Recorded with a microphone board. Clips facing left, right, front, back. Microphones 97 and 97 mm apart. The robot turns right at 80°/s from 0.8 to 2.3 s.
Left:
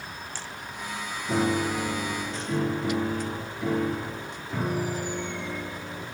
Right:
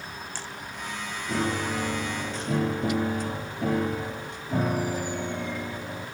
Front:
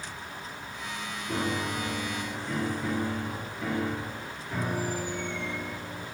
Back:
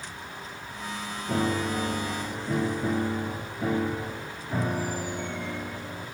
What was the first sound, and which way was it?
A piano, 160° left.